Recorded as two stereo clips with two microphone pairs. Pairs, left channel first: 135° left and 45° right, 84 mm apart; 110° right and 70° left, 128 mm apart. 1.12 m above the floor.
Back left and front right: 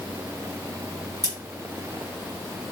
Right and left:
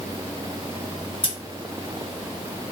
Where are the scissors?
85° right, 1.0 m.